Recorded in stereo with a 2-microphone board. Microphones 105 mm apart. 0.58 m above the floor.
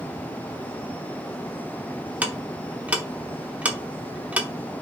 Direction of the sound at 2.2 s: 15° right (ahead or behind).